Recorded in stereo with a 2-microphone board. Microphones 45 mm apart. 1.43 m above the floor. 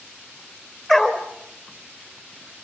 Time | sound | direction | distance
0.9 | a dog barking | 15° left (ahead or behind) | 2.5 m